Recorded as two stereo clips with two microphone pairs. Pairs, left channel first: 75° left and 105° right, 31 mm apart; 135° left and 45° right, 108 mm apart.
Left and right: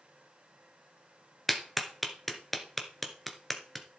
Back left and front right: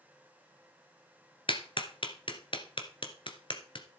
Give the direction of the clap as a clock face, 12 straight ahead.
7 o'clock.